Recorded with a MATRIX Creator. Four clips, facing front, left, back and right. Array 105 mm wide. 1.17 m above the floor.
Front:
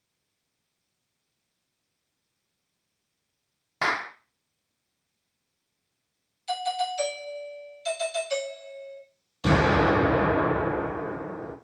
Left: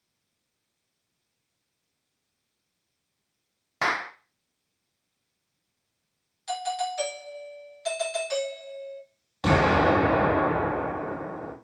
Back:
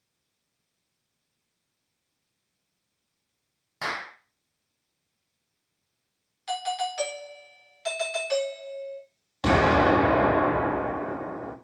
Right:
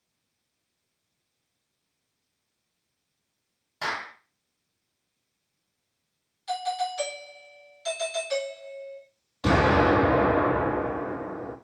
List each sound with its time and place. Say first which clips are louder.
3.8 s a clap: left 5 dB, front 5 dB; 50° left, 0.6 m
6.5 s a doorbell: right 1 dB, front 1 dB; 170° left, 1.7 m
9.4 s an explosion: even, back 1 dB; 150° left, 2 m